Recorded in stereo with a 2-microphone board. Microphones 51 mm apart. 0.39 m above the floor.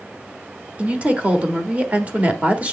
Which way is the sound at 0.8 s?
25° right (ahead or behind).